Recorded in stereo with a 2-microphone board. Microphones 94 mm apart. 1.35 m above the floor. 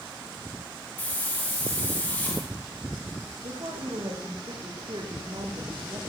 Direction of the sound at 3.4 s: 65° right (ahead or behind).